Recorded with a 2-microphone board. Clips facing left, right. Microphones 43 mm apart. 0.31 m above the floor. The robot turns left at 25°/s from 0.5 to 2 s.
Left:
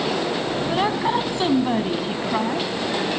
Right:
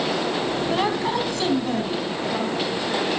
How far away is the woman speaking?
About 2.5 m.